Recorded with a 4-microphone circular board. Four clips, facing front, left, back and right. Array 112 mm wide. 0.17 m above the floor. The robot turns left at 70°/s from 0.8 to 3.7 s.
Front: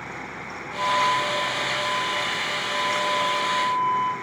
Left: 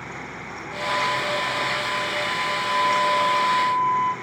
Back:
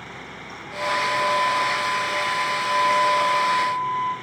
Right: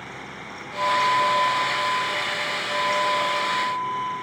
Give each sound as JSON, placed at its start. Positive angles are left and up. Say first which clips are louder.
{"t": 0.8, "sound": "a flute", "louder": "right 4 dB, front 1 dB", "azimuth_deg": -85, "distance_m": 4.5}